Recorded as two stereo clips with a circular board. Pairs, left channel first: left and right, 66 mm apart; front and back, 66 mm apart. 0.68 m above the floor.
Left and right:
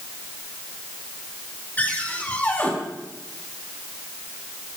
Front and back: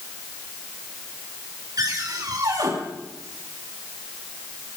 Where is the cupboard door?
155° left, 6 m.